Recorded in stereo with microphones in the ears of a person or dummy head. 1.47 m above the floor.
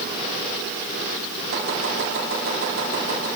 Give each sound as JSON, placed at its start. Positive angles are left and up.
{"t": 1.5, "sound": "chopping", "side_deg": -80, "distance_m": 4.5}